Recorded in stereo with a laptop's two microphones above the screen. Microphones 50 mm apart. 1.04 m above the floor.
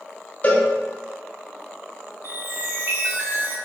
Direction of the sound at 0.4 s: 30° left (ahead or behind).